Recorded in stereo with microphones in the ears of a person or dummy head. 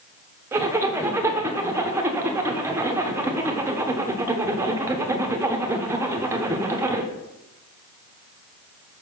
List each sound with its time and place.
0.5 s a zipper: 10° right (ahead or behind), 0.7 m